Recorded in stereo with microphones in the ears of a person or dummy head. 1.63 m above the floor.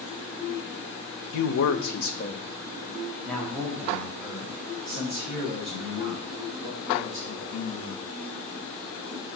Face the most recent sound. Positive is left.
turn(degrees=-20)  # may be behind; listen again after turning